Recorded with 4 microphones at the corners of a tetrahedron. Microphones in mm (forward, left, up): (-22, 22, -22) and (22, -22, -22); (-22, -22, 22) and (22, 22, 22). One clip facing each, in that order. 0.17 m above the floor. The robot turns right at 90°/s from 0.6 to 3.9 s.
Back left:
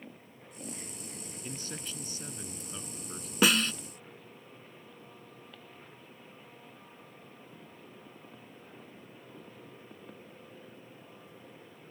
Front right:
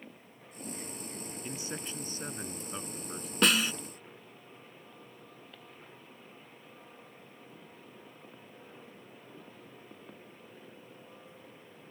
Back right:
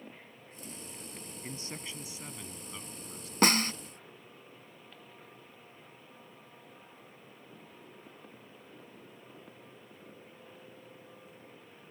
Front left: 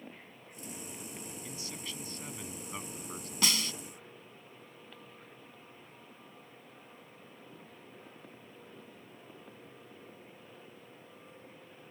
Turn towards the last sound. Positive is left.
turn(degrees=-100)